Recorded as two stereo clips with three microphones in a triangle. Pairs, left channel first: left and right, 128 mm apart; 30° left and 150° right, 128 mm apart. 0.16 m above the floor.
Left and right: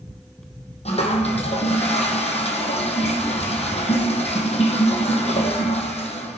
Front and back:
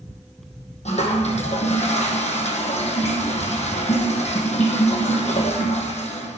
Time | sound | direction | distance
0.8 | a toilet flushing | 55° left | 1.9 m